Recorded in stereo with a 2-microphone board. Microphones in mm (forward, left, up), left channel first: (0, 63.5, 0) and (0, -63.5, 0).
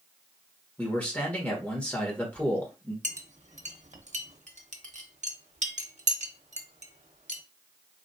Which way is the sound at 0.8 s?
10° left (ahead or behind).